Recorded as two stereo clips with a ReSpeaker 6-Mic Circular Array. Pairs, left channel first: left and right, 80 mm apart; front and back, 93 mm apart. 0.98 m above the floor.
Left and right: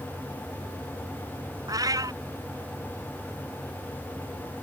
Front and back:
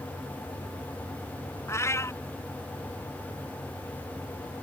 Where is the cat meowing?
55° right.